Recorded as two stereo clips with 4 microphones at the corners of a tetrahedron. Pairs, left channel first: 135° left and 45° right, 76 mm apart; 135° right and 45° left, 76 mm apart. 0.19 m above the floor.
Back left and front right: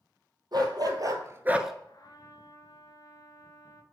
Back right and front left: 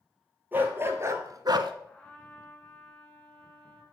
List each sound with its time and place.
0.5 s a dog barking: 20° right, 1.5 m; by 1.7 s 45° left, 0.5 m
1.9 s a trumpet: 150° left, 1.3 m